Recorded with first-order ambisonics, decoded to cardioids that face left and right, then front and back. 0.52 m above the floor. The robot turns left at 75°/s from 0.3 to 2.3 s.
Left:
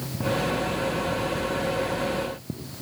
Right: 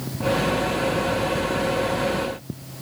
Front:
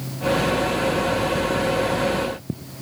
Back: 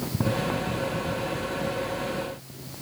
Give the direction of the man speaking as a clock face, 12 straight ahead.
No man speaking in this recording.